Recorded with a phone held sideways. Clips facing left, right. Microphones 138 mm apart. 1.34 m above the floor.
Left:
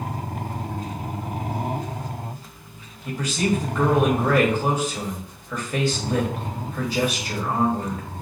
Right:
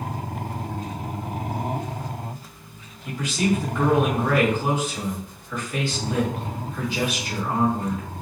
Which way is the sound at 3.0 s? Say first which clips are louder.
Even; 40° left (ahead or behind).